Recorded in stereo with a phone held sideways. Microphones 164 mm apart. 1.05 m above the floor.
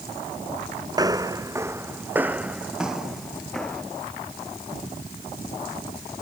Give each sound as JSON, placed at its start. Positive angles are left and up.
{"t": 0.9, "sound": "footsteps", "side_deg": -25}